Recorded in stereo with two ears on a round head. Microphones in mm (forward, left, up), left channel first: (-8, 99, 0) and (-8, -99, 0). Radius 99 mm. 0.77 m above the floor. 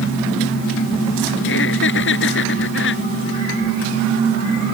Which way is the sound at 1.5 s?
60° left (ahead or behind).